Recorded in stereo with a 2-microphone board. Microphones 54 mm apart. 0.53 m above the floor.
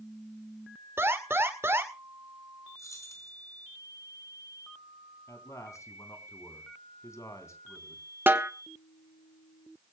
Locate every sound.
1.0 s an alarm: 50° right (ahead or behind), 2 m
2.8 s keys jangling: 80° left, 4.5 m
5.3 s a man speaking: 75° left (ahead or behind), 3.5 m
8.3 s a snare drum: 40° right (ahead or behind), 1.2 m